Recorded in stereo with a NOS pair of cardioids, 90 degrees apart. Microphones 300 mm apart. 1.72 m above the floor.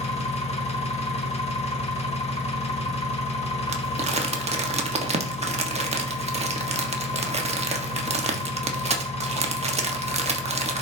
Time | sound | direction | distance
0.0 | an engine running | 20° left | 1.8 m
3.7 | crumpling | 20° right | 1.3 m